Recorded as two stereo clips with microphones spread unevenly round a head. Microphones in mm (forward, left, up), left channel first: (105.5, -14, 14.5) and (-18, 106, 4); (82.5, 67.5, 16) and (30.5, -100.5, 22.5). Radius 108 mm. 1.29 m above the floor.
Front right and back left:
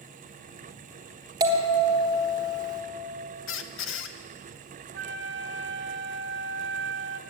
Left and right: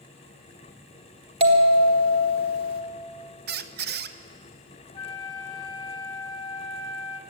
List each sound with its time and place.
1.4 s a bell: 160° right, 1.0 m
3.5 s a squeak: 75° right, 0.6 m
4.9 s a flute: 140° left, 0.7 m